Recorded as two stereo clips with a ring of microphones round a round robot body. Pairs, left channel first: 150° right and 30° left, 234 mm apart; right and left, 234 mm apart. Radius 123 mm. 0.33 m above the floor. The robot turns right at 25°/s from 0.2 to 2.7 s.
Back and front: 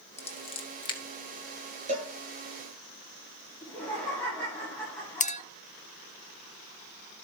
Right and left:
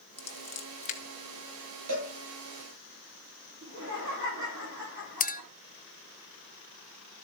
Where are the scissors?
120° right, 1.6 m; by 1.0 s 100° right, 1.6 m.